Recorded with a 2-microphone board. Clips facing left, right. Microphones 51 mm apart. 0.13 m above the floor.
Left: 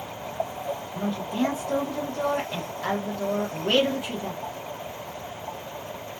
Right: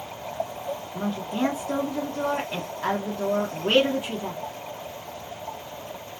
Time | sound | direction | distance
0.9 | a woman speaking | 25° right (ahead or behind) | 1.5 m